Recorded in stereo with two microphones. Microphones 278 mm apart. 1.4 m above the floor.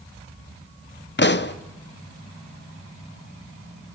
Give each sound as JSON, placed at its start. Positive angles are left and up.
{"t": 1.2, "sound": "a pop", "side_deg": 40, "distance_m": 0.6}